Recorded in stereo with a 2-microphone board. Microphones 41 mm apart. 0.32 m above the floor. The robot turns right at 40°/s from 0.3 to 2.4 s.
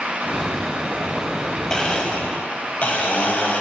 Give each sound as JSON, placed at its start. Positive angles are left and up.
{"t": 1.7, "sound": "a blender", "side_deg": 15, "distance_m": 0.9}